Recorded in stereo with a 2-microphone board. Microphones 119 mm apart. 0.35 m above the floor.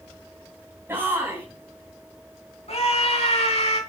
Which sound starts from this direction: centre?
A shout, at 0.9 s.